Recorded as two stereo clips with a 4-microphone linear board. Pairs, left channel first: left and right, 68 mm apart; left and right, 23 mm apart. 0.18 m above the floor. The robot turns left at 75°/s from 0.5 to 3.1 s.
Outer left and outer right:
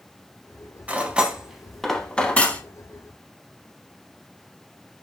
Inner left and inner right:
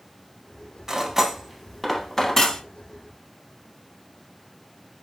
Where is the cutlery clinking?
20° right (ahead or behind), 0.6 m; by 2.6 s 25° left (ahead or behind), 0.6 m.